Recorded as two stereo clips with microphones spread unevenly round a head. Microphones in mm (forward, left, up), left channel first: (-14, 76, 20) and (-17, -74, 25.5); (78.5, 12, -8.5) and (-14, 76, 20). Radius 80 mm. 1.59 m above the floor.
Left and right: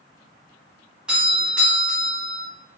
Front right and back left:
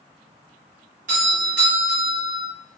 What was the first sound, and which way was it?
A doorbell, 175° right.